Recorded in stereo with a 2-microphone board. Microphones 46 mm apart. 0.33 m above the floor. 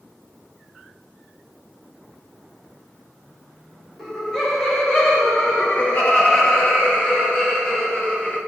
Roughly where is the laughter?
Centre.